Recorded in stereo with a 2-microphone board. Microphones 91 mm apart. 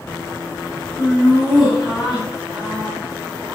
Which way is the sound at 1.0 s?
15° left (ahead or behind).